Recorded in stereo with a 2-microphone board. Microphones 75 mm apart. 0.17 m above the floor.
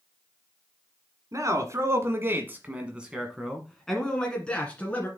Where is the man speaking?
45° right (ahead or behind), 1.6 m; by 5.1 s 20° left (ahead or behind), 2 m.